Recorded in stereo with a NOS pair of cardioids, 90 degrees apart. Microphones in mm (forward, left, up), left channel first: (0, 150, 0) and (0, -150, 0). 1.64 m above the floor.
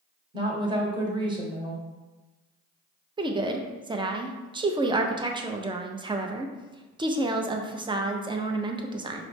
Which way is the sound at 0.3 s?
15° right.